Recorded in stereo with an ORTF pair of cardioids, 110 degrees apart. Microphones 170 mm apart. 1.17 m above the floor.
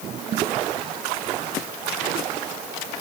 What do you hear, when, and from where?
Only background noise.